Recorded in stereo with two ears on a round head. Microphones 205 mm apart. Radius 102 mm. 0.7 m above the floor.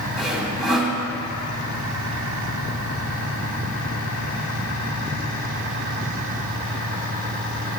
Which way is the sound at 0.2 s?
Centre (ahead or behind).